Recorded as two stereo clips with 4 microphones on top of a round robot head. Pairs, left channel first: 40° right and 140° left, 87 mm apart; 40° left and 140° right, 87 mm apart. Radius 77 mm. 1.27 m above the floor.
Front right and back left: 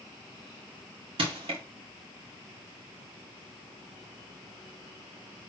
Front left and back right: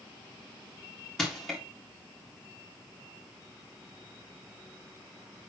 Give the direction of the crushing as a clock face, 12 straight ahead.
8 o'clock.